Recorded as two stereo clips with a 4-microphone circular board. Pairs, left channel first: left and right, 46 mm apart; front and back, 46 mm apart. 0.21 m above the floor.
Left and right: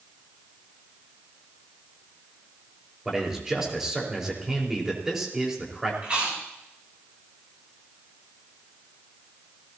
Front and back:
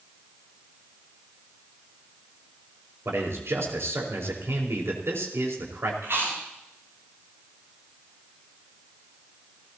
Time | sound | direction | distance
3.0 | a man speaking | 165° right | 5 m
6.0 | chewing | 150° right | 9.5 m